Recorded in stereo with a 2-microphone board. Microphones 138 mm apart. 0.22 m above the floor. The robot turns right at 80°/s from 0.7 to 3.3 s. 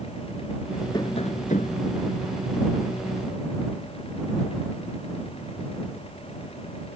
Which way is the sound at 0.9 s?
35° left.